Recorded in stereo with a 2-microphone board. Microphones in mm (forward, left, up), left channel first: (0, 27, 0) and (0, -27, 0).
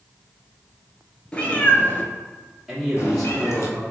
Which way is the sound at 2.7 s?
Centre (ahead or behind).